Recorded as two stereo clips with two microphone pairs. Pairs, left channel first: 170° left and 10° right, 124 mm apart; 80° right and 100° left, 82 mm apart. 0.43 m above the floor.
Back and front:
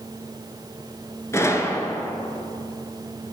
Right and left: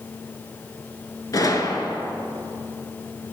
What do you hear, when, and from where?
1.3 s a gunshot: 120° right, 1.2 m